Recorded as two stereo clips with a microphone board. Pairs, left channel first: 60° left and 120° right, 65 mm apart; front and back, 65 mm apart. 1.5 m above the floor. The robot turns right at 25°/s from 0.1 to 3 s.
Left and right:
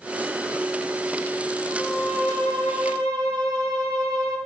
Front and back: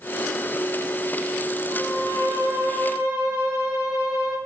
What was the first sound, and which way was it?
A violin, 145° right.